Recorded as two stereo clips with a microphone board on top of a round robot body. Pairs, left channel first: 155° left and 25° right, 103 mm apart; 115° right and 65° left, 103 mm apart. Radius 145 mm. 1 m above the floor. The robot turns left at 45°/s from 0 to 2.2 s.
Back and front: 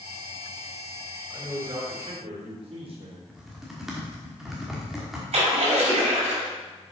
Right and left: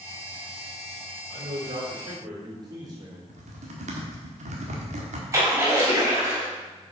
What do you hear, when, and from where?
1.3 s a man speaking: 50° left, 3.5 m; by 3.2 s 10° left, 3.5 m
3.3 s typing on a keyboard: 65° left, 1.3 m
5.3 s a splash: straight ahead, 4 m